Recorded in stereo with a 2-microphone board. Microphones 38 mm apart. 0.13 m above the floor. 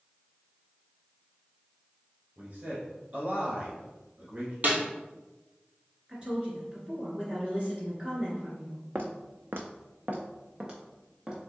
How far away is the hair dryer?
I don't hear a hair dryer.